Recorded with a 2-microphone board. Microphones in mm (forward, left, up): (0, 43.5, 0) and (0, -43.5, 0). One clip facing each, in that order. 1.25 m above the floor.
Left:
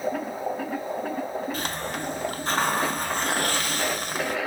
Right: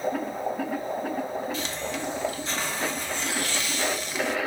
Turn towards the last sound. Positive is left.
turn(degrees=50)  # may be behind; listen again after turning